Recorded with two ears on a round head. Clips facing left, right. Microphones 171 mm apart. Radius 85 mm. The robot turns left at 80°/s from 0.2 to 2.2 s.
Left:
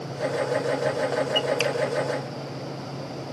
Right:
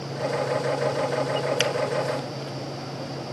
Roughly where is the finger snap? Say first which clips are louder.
Even; centre.